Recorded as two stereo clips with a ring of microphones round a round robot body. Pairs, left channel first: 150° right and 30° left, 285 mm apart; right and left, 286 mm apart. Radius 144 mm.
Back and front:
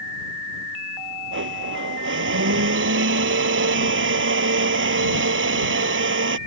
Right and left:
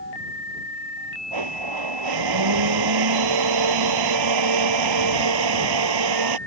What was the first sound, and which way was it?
A blender, 80° left.